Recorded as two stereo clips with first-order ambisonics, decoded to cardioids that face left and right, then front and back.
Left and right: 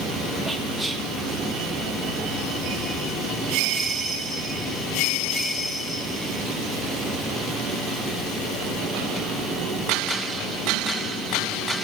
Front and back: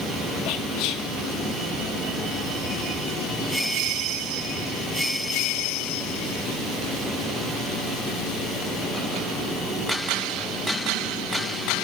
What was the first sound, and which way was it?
Whispering, 5° right.